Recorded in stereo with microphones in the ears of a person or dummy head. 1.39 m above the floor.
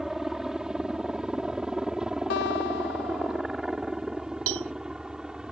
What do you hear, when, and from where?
0.0 s a helicopter: 5° right (ahead or behind)
2.3 s a guitar: 55° left (ahead or behind)
4.5 s a cowbell: 70° right (ahead or behind)